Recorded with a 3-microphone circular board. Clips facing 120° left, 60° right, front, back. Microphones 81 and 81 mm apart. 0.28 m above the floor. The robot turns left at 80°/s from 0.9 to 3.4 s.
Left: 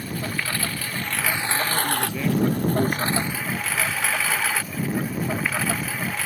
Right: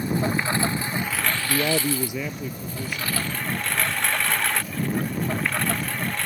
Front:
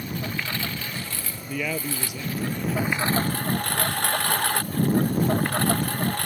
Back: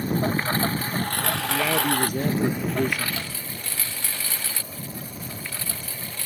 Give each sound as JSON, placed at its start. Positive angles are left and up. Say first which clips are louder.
{"t": 0.0, "sound": "a lawn mower", "louder": "right 5 dB, back 7 dB", "azimuth_deg": -125}
{"t": 1.5, "sound": "a man speaking", "louder": "right 4 dB, back 4 dB", "azimuth_deg": -85}